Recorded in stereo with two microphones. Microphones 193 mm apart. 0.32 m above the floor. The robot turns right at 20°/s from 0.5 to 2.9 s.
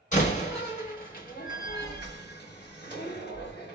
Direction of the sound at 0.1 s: 45° left (ahead or behind).